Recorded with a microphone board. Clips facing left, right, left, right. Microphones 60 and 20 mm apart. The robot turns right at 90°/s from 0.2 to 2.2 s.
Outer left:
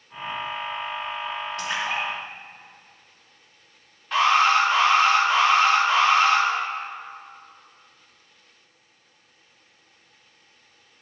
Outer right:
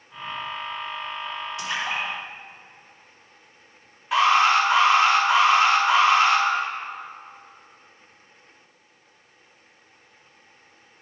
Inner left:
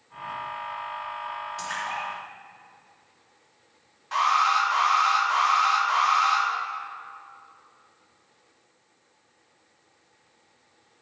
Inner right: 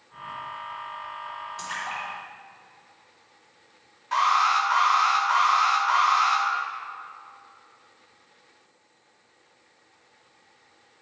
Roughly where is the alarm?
Centre.